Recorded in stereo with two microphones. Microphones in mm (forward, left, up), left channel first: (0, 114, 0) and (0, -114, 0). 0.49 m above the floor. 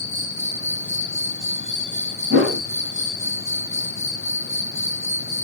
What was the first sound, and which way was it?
An insect, 60° right (ahead or behind).